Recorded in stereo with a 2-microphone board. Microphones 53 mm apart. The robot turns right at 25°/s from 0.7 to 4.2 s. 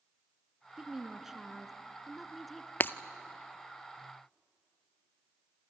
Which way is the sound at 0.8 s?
10° right (ahead or behind).